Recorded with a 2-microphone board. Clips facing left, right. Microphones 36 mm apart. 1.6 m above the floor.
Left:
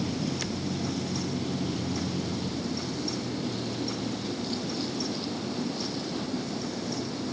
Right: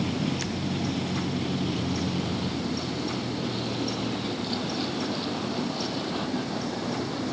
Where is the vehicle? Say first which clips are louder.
Right 3 dB; 35° right (ahead or behind); by 7.3 s 40° right (ahead or behind).